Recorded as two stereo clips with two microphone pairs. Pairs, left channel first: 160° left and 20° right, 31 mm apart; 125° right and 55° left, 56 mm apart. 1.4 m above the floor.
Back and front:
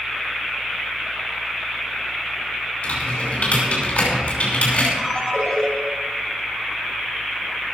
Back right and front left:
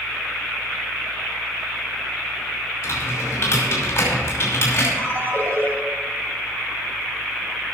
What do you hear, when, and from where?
2.8 s typing on a keyboard: 175° right, 5.5 m
5.0 s a ringtone: 95° left, 3 m